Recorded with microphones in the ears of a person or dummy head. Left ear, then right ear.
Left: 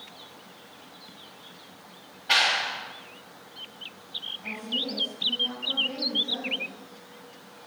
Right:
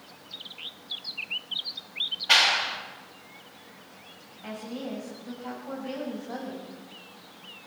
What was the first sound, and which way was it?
A clap, 15° right (ahead or behind).